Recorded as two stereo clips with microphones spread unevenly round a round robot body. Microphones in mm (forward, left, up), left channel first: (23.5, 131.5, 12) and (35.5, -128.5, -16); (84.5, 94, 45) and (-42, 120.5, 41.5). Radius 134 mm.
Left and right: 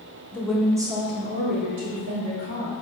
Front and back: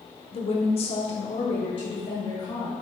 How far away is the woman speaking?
About 0.8 m.